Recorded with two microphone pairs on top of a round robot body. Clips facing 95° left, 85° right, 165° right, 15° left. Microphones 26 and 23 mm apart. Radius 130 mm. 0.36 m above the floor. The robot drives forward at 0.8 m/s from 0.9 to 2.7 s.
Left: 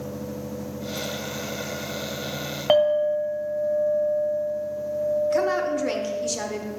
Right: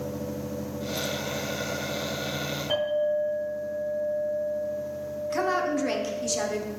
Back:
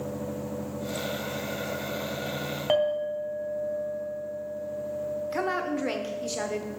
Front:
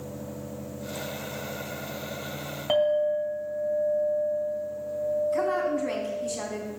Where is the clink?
115° left, 2 m.